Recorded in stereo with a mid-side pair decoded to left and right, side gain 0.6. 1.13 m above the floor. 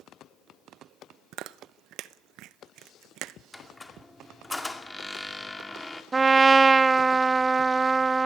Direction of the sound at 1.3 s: 65° right.